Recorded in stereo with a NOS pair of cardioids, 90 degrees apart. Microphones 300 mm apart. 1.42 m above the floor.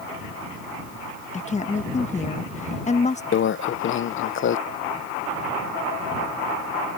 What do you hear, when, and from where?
1.3 s a woman speaking: 25° left
3.3 s a microwave: 40° left